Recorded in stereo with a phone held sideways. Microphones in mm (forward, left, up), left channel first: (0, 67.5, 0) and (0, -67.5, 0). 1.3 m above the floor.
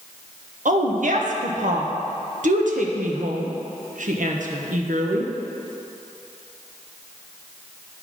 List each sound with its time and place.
0.7 s a woman speaking: 70° right (ahead or behind), 0.9 m